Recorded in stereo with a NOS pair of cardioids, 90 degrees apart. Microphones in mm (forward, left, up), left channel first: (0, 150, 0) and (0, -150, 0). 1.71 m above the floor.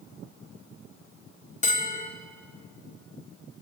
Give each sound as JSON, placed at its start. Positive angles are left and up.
{"t": 1.6, "sound": "a bell", "azimuth_deg": 25, "distance_m": 3.0}